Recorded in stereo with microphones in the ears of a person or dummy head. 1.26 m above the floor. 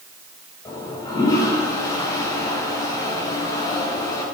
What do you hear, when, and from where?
0.7 s a toilet flushing: 20° left (ahead or behind), 3.5 m